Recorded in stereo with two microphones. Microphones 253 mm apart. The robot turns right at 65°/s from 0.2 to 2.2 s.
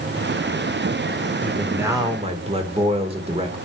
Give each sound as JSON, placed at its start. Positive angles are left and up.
{"t": 1.4, "sound": "a man speaking", "azimuth_deg": 170, "distance_m": 1.7}